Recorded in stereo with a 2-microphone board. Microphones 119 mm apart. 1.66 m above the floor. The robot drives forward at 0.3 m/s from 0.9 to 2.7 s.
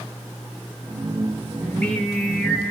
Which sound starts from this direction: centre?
Singing, at 1.6 s.